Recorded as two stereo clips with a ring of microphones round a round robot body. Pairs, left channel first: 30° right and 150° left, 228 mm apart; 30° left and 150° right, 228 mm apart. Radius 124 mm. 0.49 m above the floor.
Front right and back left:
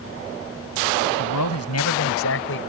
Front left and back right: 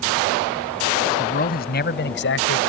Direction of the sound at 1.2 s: 25° right.